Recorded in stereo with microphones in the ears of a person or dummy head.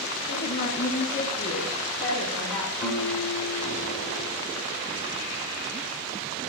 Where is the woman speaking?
60° left (ahead or behind), 2 m; by 2.7 s centre (ahead or behind), 4 m.